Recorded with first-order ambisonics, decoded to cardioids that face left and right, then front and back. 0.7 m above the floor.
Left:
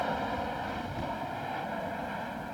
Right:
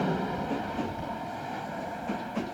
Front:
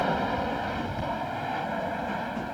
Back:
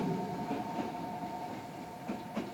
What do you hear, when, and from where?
0.0 s an aircraft: 5° left